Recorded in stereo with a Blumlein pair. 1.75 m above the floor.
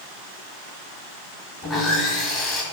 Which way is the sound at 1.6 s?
20° left.